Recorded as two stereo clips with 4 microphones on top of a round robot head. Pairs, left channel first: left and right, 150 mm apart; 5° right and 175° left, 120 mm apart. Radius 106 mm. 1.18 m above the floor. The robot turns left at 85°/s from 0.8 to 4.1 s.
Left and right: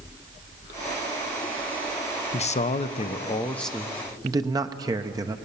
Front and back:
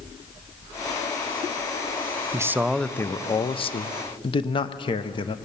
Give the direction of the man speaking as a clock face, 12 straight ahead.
8 o'clock.